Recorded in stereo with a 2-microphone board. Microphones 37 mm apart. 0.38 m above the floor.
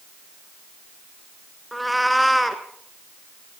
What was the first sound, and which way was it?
A cat meowing, centre (ahead or behind).